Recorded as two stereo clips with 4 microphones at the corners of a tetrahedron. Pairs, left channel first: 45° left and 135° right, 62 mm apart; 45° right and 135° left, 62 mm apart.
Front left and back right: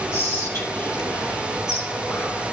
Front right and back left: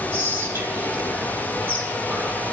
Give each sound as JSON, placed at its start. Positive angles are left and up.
{"t": 0.1, "sound": "whispering", "azimuth_deg": 80, "distance_m": 3.5}